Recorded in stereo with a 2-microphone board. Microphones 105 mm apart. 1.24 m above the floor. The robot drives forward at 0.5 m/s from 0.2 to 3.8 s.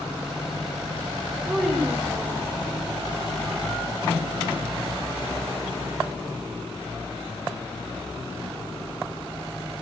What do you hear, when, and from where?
1.4 s a child speaking: 15° right (ahead or behind), 3 m